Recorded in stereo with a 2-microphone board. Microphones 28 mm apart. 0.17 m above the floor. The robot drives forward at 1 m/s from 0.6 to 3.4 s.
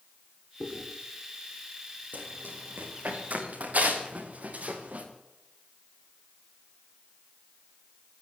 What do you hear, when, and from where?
0.6 s chewing: 15° right (ahead or behind), 6.5 m
2.1 s running footsteps: 90° right, 5 m; by 5.1 s 60° right (ahead or behind), 5 m